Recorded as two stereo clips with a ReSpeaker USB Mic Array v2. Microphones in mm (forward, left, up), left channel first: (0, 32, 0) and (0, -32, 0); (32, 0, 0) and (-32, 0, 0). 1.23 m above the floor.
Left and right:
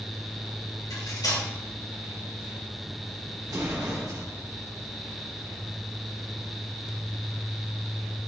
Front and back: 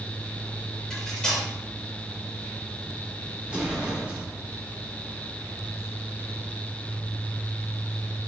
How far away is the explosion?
About 3 m.